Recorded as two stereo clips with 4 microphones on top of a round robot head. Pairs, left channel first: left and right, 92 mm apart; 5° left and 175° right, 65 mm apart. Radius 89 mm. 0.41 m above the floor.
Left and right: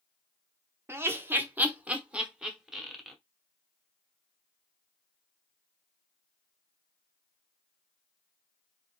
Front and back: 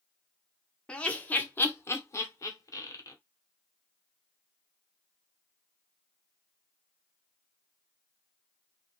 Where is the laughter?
55° right, 1.0 m; by 3.1 s 5° right, 1.7 m.